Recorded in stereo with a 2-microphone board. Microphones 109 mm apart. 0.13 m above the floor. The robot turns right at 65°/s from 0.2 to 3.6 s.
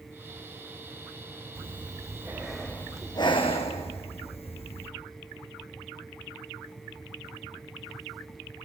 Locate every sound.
1.6 s breathing: 65° right, 3.5 m; by 4.9 s 70° left, 3.5 m